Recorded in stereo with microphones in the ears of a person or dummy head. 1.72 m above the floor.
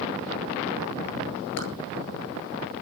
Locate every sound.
1.6 s a clap: 90° left, 9 m